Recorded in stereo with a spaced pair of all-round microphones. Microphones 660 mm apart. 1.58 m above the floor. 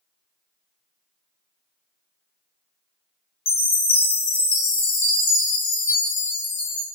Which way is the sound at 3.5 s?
55° left (ahead or behind).